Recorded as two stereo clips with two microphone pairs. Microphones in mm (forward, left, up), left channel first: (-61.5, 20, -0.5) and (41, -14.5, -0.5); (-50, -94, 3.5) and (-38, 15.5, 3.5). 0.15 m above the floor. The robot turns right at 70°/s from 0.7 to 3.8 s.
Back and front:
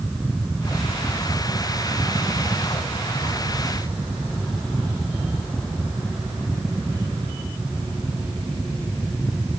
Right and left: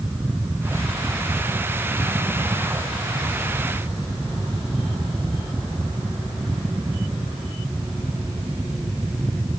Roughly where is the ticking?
No ticking in this recording.